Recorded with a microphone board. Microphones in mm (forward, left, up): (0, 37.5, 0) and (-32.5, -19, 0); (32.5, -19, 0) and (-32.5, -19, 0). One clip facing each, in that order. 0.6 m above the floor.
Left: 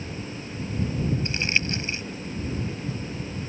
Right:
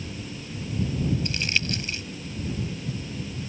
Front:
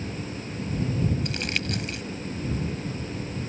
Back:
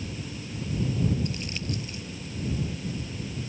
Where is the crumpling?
Straight ahead.